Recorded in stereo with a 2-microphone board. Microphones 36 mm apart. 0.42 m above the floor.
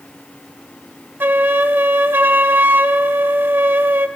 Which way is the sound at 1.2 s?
80° right.